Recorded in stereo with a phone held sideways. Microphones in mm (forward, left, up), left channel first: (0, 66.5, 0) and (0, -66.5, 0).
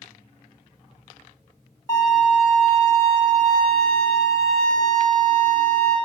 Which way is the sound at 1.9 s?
25° left (ahead or behind).